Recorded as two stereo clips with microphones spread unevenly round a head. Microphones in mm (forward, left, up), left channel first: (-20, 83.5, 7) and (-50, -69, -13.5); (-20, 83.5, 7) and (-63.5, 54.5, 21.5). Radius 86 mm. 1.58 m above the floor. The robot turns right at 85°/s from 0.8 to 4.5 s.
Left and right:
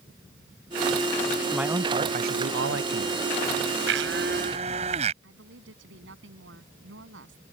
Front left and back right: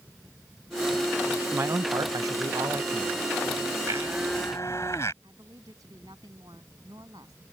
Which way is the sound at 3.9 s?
95° right.